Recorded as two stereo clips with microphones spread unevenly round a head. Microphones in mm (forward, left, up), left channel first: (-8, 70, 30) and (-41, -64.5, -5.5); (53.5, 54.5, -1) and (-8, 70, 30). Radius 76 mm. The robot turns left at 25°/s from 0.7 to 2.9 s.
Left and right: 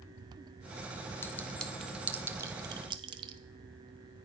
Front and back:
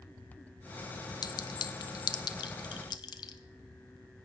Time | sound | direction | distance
1.2 | a clink | straight ahead | 0.7 m